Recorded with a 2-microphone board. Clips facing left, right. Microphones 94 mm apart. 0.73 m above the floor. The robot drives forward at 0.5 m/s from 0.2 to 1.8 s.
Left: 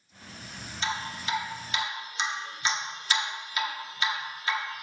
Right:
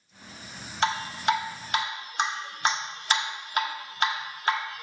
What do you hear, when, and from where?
0.8 s dripping: 65° right (ahead or behind), 0.9 m; by 4.8 s 55° right (ahead or behind), 1.0 m